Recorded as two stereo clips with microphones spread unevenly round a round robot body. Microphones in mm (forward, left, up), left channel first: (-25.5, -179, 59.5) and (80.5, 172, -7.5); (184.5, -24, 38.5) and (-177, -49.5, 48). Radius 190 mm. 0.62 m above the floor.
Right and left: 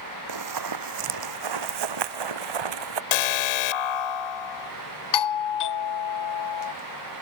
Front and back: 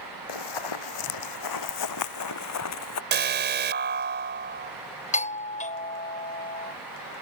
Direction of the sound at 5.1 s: 65° right.